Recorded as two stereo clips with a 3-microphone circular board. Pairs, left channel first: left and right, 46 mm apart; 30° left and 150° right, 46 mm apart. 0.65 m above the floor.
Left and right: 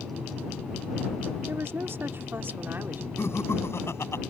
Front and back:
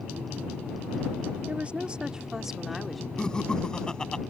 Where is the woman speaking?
95° right; by 3.1 s 55° right.